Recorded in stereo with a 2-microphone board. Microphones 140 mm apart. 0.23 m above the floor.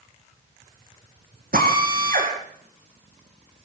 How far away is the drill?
About 8.5 m.